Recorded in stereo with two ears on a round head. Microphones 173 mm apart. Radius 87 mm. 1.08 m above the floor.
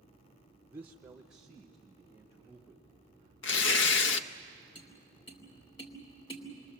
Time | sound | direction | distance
0.7 | a man speaking | 10° right (ahead or behind) | 0.7 m
3.4 | tearing paper | 65° left (ahead or behind) | 0.7 m
4.8 | tapping | 25° left (ahead or behind) | 3 m